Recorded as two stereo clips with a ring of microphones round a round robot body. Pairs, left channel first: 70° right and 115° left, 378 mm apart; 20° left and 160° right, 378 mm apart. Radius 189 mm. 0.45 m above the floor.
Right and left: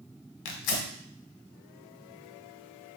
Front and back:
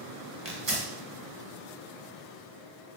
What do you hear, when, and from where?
0.5 s tearing paper: 85° right, 1.2 m